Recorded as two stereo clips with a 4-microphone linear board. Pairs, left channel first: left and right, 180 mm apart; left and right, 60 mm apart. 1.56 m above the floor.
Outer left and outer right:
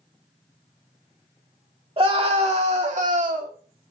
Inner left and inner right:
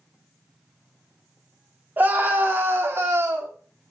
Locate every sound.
2.0 s a scream: 30° right (ahead or behind), 2.5 m; by 3.5 s 50° right (ahead or behind), 2.5 m